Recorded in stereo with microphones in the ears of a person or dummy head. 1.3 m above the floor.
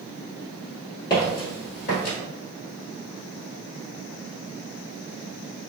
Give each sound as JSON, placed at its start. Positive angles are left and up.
{"t": 1.1, "sound": "footsteps", "side_deg": 20, "distance_m": 1.3}